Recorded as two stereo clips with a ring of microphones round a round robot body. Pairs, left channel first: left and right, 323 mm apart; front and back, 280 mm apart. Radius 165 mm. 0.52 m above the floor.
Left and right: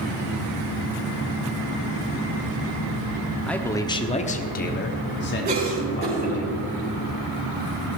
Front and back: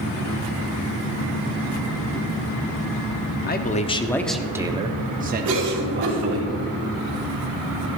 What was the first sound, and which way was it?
A man speaking, 5° left.